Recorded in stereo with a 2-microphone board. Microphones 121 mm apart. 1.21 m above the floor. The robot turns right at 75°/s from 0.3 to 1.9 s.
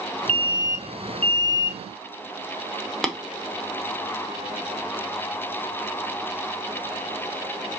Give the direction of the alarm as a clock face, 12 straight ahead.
2 o'clock.